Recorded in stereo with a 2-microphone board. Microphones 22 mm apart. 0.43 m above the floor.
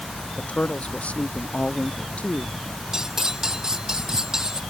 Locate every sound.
0.4 s a woman speaking: 75° left (ahead or behind)
2.9 s cutlery clinking: 25° right (ahead or behind)